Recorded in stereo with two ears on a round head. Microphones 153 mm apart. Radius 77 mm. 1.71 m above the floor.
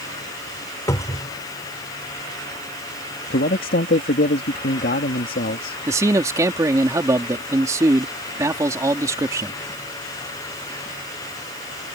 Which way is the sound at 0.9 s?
20° left (ahead or behind).